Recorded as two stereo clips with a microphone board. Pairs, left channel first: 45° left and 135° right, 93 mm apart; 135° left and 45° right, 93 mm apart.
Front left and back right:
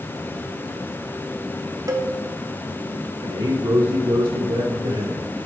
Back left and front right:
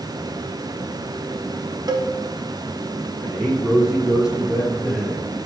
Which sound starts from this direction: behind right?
A man speaking, at 3.2 s.